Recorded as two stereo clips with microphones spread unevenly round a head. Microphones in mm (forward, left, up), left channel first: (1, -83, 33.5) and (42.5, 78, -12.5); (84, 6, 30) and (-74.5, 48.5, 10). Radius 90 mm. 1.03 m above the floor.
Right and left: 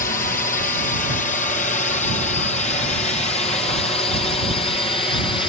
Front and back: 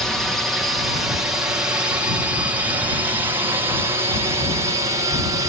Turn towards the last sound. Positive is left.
turn(degrees=-170)